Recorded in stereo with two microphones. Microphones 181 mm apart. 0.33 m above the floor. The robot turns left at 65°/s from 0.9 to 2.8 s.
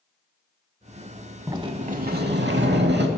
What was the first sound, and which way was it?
A sliding door, 20° right.